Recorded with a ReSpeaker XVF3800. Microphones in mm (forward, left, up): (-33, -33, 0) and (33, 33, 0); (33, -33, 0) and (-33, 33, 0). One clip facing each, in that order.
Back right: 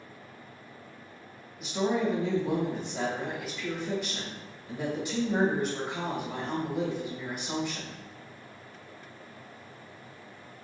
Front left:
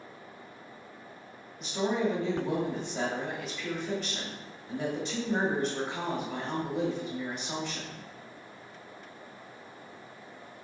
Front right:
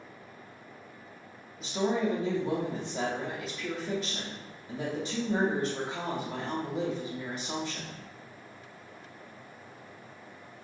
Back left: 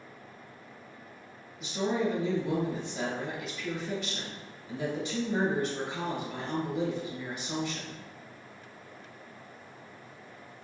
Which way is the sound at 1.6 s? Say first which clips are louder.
Back right 1 dB, front right 1 dB; 50° right.